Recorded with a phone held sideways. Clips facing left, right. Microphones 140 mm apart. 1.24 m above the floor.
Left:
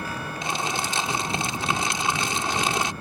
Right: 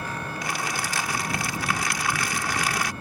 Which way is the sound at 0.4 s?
25° left (ahead or behind).